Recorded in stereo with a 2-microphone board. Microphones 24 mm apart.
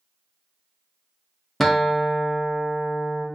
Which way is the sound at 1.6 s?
5° left (ahead or behind).